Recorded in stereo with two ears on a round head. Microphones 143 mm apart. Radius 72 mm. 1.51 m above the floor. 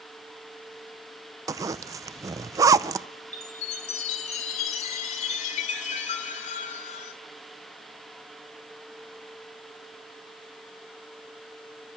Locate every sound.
1.5 s a zipper: 20° right (ahead or behind), 0.5 m
3.3 s a chime: 50° left (ahead or behind), 2.5 m